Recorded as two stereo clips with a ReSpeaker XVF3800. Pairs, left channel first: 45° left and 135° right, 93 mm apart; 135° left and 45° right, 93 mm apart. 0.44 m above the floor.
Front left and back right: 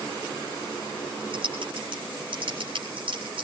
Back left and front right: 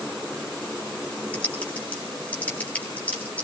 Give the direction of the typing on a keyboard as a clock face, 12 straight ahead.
5 o'clock.